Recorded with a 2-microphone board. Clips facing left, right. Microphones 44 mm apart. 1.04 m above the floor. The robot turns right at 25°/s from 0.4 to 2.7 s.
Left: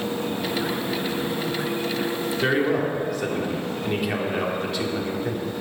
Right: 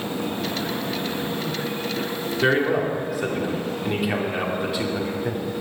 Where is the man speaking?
15° right (ahead or behind), 2 m; by 5.5 s 5° right (ahead or behind), 2 m.